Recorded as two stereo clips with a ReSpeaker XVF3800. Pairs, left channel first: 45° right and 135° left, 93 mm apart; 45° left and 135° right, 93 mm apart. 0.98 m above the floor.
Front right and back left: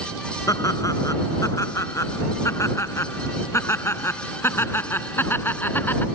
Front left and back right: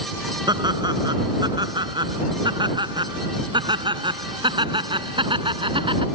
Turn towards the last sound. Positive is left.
turn(degrees=-115)